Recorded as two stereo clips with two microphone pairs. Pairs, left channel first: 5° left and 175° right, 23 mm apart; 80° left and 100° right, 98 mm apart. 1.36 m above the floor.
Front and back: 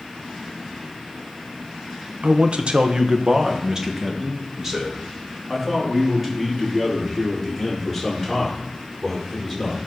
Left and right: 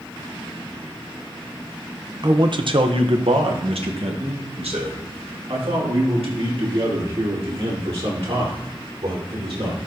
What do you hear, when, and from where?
2.2 s a man speaking: 150° right, 0.8 m; by 9.8 s 95° right, 5 m